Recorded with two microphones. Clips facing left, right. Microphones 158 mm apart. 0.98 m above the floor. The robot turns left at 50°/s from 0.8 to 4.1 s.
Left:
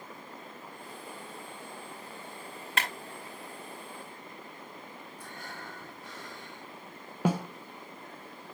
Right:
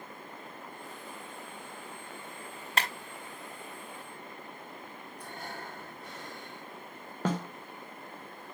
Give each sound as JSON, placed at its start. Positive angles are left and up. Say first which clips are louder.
{"t": 2.8, "sound": "a clap", "louder": "right 1 dB", "side_deg": -35, "distance_m": 5.0}
{"t": 5.2, "sound": "breathing", "louder": "right 4 dB", "side_deg": -55, "distance_m": 2.5}
{"t": 7.2, "sound": "a snare drum", "louder": "left 3 dB", "side_deg": 10, "distance_m": 1.0}